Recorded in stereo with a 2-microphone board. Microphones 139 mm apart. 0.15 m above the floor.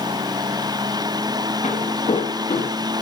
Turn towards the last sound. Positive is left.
turn(degrees=50)  # may be behind; listen again after turning